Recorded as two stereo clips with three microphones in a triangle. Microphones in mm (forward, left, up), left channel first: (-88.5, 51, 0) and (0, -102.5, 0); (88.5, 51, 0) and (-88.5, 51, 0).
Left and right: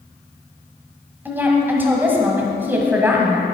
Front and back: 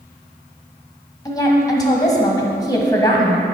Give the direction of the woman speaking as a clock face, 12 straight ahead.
12 o'clock.